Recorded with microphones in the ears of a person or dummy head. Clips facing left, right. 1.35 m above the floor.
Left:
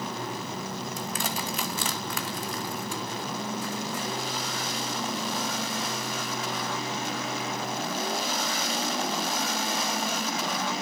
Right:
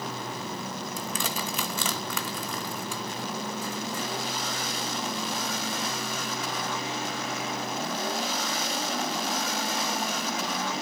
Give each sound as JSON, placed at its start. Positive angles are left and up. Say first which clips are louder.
{"t": 1.0, "sound": "crushing", "louder": "right 1 dB", "side_deg": -70, "distance_m": 2.0}